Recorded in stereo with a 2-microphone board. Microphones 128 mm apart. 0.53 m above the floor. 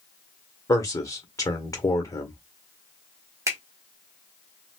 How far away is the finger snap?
About 1.1 m.